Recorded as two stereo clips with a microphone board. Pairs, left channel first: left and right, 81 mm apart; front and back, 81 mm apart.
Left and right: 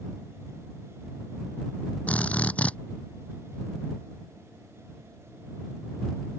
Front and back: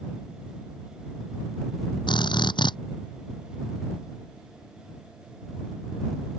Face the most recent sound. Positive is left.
turn(degrees=15)